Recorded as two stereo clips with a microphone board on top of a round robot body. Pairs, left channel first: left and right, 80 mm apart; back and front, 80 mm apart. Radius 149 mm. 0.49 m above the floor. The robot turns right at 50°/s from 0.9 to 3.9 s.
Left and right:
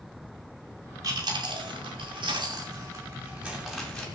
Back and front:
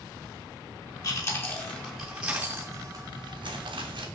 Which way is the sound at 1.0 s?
140° right.